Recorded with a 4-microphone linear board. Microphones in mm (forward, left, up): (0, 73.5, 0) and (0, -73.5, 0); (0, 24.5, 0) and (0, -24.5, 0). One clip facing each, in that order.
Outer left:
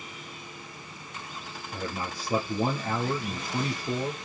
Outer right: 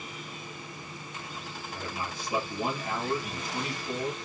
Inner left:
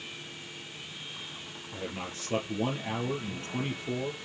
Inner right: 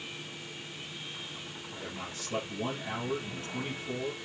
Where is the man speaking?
40° left (ahead or behind), 3.5 m.